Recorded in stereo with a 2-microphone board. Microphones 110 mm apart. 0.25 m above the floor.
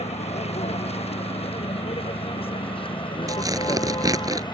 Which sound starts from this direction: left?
A vehicle, at 0.0 s.